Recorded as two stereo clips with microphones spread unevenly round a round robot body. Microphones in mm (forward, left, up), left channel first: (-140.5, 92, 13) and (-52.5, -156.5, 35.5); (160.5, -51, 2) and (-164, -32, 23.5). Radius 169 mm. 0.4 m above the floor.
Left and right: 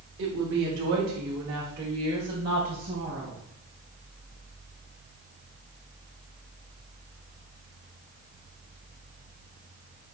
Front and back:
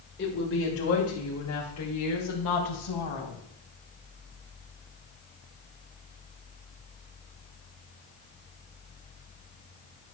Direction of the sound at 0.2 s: 40° right.